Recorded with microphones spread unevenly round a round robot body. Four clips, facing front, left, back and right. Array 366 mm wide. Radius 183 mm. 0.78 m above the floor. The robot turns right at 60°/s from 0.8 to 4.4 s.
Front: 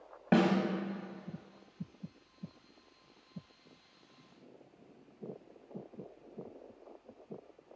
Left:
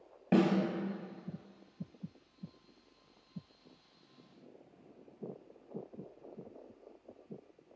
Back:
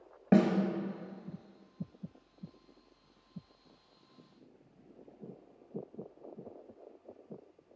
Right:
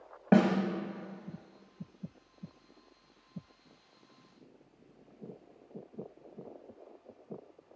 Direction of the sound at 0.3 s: 90° right.